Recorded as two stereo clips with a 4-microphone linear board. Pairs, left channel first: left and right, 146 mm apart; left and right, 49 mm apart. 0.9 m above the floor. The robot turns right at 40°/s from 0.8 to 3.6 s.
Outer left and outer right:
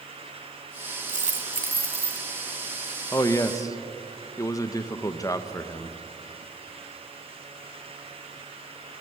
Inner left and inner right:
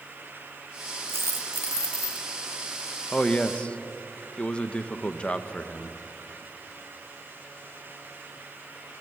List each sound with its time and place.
1.1 s a dropped coin: 120° right, 1.8 m; by 2.2 s 75° right, 1.8 m
3.1 s a man speaking: 20° left (ahead or behind), 0.8 m; by 6.0 s 25° left (ahead or behind), 0.8 m